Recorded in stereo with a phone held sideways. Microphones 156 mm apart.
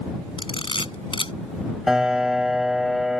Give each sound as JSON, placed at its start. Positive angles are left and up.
{"t": 0.4, "sound": "a camera shutter", "side_deg": 35}
{"t": 1.9, "sound": "a piano", "side_deg": -5}